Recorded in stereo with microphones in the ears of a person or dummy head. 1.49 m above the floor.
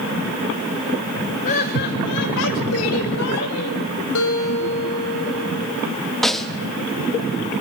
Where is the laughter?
45° left (ahead or behind), 1.3 m; by 3.8 s 90° left, 3 m.